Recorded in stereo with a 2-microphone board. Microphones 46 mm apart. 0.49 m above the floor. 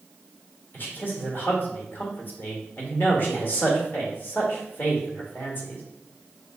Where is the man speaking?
45° left (ahead or behind), 1.4 m.